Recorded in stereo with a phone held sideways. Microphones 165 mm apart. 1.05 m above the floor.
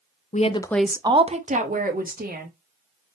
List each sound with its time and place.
0.3 s a woman speaking: 50° left (ahead or behind), 0.7 m; by 2.5 s 65° right (ahead or behind), 2 m